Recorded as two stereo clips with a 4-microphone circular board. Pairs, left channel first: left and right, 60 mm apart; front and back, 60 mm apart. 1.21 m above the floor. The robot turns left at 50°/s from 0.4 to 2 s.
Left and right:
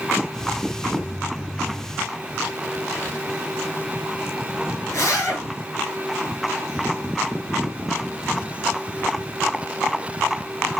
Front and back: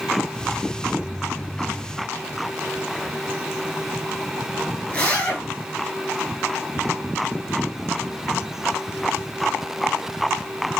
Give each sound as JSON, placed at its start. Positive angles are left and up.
{"t": 4.9, "sound": "a zipper", "azimuth_deg": 65, "distance_m": 4.0}